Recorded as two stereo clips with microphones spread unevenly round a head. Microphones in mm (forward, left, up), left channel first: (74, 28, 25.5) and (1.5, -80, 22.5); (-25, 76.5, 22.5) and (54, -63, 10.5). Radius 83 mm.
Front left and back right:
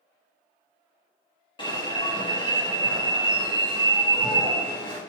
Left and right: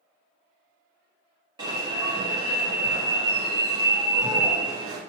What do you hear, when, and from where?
1.6 s an alarm: 5° left, 1.4 m